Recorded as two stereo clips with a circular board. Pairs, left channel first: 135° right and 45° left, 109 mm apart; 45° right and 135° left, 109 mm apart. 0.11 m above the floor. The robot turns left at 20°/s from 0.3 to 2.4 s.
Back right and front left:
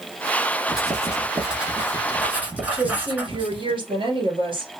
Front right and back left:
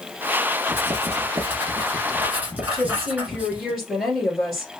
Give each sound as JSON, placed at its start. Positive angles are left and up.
{"t": 0.7, "sound": "writing", "azimuth_deg": 125, "distance_m": 1.1}
{"t": 2.7, "sound": "a woman speaking", "azimuth_deg": 45, "distance_m": 2.0}